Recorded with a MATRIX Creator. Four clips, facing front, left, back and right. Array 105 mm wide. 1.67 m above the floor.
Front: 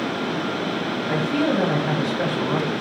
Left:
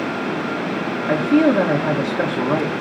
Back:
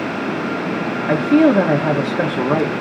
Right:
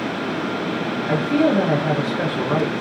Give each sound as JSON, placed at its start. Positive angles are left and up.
{"t": 1.1, "sound": "a man speaking", "azimuth_deg": 165, "distance_m": 1.6}